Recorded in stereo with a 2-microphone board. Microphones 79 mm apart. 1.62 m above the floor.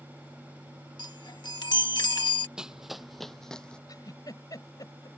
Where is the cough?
No cough in this recording.